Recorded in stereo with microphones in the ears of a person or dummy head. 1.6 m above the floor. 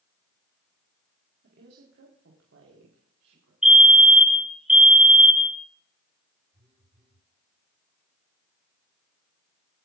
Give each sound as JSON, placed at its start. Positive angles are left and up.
{"t": 1.4, "sound": "a woman speaking", "side_deg": -55, "distance_m": 3.5}
{"t": 3.6, "sound": "a fire alarm", "side_deg": -5, "distance_m": 1.2}
{"t": 6.5, "sound": "a phone buzzing", "side_deg": -40, "distance_m": 7.0}